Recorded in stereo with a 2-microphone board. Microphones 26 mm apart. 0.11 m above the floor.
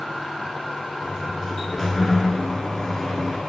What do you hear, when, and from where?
1.0 s a sliding door: 10° left (ahead or behind), 0.7 m